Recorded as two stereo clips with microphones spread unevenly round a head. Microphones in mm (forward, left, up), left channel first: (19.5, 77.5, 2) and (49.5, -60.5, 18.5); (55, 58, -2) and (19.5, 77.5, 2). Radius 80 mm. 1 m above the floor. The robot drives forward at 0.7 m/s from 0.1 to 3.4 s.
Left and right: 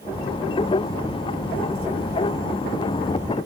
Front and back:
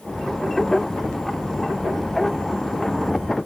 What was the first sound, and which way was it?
Only background noise.